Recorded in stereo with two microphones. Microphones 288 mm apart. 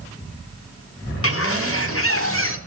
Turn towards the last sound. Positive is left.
turn(degrees=50)  # may be behind; listen again after turning